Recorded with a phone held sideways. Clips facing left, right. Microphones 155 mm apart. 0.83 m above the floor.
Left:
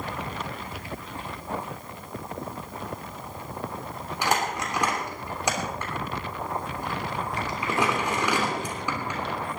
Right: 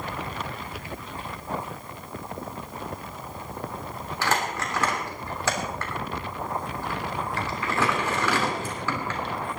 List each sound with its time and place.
4.2 s crumpling: 15° left (ahead or behind), 3 m